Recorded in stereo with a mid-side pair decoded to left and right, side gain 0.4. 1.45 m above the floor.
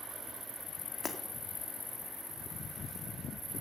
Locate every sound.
1.0 s breaking glass: 40° left, 2.5 m